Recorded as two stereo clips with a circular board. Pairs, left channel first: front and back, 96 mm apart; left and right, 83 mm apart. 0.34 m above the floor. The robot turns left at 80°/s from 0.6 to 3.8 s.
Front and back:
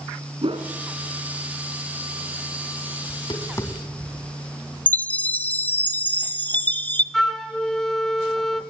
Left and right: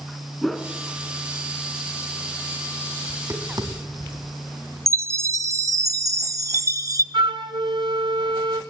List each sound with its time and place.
0.4 s a whoosh: straight behind, 2.0 m; by 0.7 s 170° left, 2.0 m
3.1 s tapping: 20° right, 2.5 m; by 4.3 s 75° right, 2.5 m
4.9 s a chime: 65° right, 0.6 m
7.1 s a flute: 85° right, 1.0 m